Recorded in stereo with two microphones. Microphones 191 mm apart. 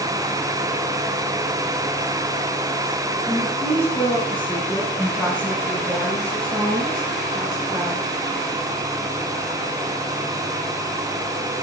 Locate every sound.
3.3 s a woman speaking: 5° left (ahead or behind), 8 m; by 8.0 s 20° right (ahead or behind), 9 m